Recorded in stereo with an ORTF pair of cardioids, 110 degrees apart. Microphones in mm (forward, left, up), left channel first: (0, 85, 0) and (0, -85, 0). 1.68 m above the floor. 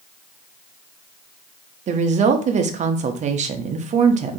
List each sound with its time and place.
1.9 s a woman speaking: 45° right, 0.6 m